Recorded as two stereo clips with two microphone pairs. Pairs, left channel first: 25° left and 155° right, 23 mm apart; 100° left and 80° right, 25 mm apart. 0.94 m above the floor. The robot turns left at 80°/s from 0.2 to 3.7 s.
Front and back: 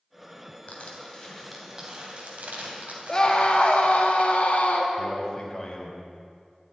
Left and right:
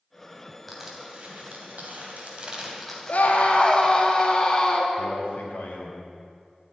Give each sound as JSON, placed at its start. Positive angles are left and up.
{"t": 0.7, "sound": "crushing", "azimuth_deg": 5, "distance_m": 3.0}
{"t": 3.1, "sound": "a scream", "azimuth_deg": 90, "distance_m": 2.0}
{"t": 5.0, "sound": "a man speaking", "azimuth_deg": 95, "distance_m": 3.5}